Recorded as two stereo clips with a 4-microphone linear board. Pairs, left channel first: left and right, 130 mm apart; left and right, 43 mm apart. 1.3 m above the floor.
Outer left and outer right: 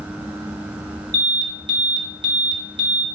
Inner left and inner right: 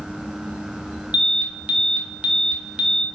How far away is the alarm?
About 0.8 m.